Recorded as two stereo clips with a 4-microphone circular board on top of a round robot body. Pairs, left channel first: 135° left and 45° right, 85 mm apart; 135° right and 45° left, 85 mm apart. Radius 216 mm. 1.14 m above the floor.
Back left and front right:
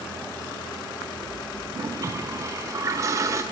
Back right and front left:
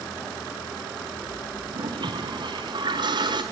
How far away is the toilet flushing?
About 1.2 m.